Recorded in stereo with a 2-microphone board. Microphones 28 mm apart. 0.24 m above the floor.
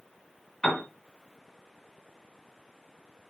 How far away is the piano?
About 1.7 m.